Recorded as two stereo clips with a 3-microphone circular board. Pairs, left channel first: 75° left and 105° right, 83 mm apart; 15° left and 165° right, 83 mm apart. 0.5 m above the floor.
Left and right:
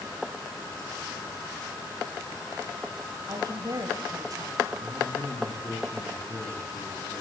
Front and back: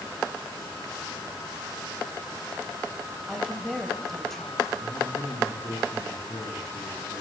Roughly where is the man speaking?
Ahead left.